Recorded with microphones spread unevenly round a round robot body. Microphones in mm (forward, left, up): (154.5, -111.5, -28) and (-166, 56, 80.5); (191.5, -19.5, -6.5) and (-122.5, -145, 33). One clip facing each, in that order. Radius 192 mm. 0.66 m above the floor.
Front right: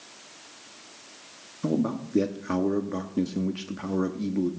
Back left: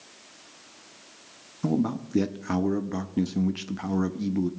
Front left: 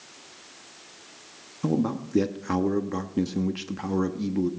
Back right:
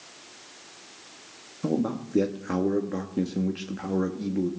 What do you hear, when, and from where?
1.6 s a man speaking: 65° left, 0.7 m